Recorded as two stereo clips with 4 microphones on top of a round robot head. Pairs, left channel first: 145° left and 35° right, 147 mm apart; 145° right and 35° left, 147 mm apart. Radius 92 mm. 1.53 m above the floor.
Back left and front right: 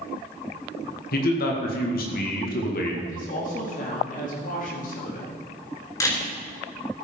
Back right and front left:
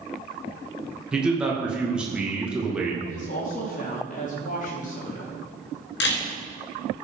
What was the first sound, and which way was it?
A man speaking, 120° left.